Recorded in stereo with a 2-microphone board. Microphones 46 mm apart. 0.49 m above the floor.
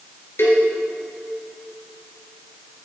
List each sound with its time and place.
0.4 s a cowbell: 65° left (ahead or behind), 3 m